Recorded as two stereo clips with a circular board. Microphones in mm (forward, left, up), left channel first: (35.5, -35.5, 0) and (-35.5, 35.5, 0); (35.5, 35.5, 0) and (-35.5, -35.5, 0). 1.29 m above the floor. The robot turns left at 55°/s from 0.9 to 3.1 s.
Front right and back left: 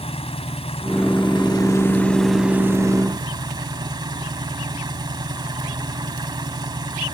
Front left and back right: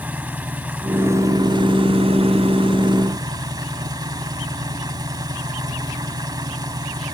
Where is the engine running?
60° right; by 7.2 s straight behind.